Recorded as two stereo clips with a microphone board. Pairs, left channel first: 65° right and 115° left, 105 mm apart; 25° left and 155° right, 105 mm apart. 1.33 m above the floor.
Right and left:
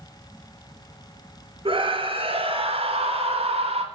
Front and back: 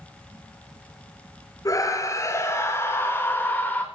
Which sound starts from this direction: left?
A scream, at 1.6 s.